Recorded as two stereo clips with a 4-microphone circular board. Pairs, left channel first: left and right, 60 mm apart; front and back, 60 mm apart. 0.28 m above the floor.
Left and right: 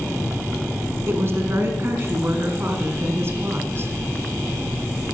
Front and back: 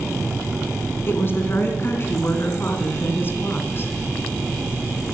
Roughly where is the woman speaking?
Ahead right.